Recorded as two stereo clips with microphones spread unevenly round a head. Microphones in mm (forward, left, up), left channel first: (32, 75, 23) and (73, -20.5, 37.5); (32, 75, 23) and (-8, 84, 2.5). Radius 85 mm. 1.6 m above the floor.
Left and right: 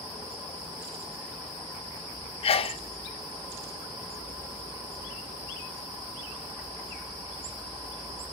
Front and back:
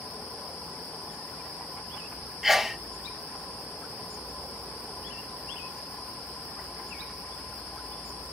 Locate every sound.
2.4 s a sneeze: 95° left, 0.6 m